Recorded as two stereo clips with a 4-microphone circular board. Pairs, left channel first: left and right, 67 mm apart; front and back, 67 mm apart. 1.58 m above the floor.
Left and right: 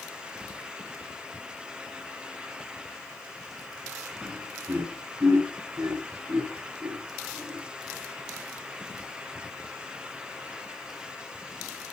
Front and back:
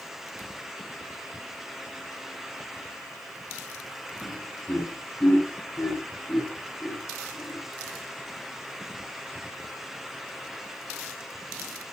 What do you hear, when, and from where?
4.2 s laughter: 50° right, 7.5 m; by 7.6 s 70° right, 10.5 m